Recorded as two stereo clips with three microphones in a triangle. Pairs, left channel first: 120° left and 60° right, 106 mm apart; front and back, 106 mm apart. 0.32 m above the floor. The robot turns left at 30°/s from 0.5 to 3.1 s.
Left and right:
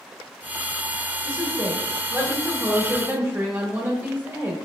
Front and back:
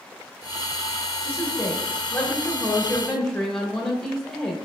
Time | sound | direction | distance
1.2 | a woman speaking | 25° right | 0.8 m